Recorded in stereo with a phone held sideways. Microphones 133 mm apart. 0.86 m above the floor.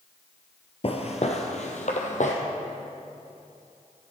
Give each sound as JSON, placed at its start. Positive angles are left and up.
{"t": 0.8, "sound": "footsteps", "side_deg": 50, "distance_m": 1.2}